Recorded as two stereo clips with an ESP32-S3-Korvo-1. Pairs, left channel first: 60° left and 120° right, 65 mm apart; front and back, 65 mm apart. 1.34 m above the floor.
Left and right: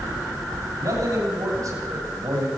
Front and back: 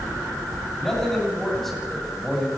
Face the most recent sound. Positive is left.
turn(degrees=-90)